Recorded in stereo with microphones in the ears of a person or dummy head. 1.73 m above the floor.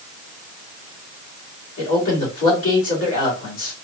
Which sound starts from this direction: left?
A man speaking, at 1.8 s.